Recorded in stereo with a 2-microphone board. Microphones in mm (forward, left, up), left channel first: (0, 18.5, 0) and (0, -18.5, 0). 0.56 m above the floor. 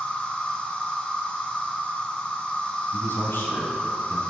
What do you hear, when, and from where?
0.0 s an insect: 25° left (ahead or behind), 2.0 m
2.9 s a man speaking: 70° left (ahead or behind), 3 m